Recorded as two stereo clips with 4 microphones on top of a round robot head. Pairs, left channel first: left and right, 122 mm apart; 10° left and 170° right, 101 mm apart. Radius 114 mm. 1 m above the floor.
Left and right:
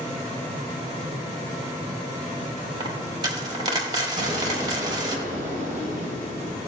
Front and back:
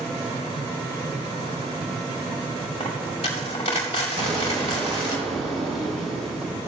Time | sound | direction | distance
2.8 | a dropped coin | 35° right | 1.3 m
4.2 | an explosion | 130° right | 2.5 m